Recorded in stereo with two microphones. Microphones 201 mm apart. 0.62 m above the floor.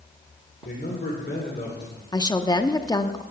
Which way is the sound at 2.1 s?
20° left (ahead or behind).